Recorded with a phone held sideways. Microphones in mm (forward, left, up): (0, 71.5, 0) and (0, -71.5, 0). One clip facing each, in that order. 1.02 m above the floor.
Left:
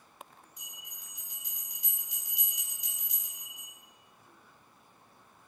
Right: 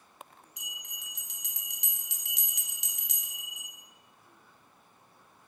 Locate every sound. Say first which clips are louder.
0.6 s a bell: right 3 dB; 80° right, 0.8 m